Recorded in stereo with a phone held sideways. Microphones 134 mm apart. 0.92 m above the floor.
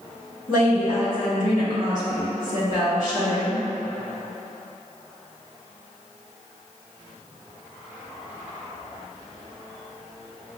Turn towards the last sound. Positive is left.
turn(degrees=70)  # may be behind; listen again after turning